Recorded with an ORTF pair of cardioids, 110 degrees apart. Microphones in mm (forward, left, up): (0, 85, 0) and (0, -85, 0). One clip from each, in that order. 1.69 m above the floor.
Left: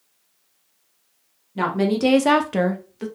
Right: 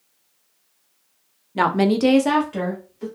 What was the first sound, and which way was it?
A woman speaking, 40° right.